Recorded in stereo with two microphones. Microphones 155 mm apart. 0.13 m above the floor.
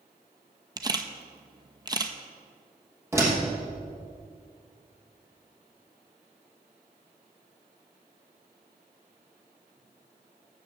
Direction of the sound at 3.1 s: 15° right (ahead or behind).